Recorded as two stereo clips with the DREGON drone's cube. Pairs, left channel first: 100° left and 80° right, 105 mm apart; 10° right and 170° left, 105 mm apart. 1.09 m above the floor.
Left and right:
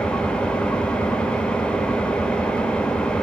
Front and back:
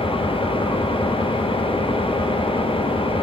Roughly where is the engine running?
Ahead.